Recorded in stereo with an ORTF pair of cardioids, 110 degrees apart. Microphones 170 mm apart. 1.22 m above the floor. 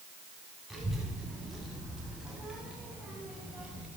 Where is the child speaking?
Straight ahead, 7.5 m; by 3.9 s 5° right, 5 m.